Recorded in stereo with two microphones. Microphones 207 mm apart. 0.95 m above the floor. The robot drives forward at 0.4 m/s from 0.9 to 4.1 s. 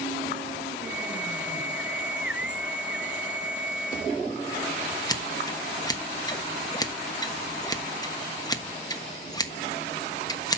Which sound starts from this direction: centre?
Scissors, at 5.1 s.